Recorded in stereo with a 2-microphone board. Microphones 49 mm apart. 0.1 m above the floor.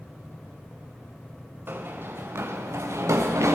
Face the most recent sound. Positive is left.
turn(degrees=-85)